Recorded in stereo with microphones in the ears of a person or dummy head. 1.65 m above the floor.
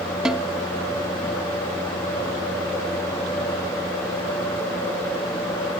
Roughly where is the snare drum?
Centre.